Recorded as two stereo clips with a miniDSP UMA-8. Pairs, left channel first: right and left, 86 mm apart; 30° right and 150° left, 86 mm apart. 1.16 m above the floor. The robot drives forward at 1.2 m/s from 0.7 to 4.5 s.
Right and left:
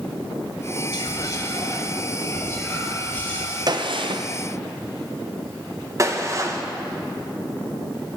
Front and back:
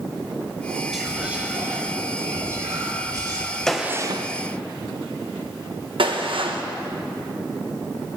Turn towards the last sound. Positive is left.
turn(degrees=145)